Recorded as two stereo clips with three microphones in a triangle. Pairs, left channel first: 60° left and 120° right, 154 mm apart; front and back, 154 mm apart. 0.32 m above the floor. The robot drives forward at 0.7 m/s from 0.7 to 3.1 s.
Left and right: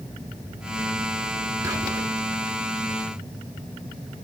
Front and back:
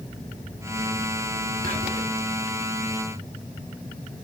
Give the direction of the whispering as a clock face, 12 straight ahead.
6 o'clock.